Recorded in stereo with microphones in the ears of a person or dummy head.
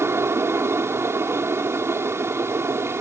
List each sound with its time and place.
0.0 s a fan: 10° right (ahead or behind)